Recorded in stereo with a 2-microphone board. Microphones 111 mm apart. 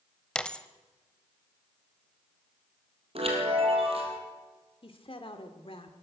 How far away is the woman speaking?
About 1.7 m.